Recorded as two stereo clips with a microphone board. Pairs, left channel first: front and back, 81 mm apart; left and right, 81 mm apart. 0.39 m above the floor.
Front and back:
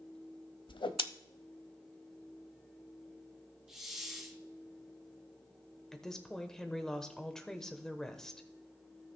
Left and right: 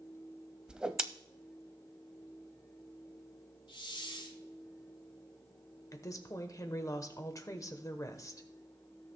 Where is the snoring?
No snoring in this recording.